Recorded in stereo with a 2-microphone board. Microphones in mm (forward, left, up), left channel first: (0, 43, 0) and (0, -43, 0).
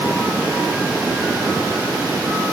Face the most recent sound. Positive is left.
No sound to turn to.